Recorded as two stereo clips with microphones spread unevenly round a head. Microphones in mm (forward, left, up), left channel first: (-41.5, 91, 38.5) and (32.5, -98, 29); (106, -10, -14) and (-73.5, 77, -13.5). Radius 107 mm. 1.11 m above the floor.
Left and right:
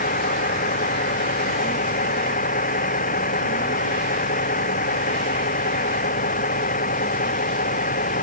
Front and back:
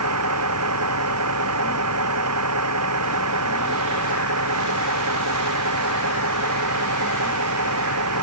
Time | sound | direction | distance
0.0 | a vehicle | 165° left | ?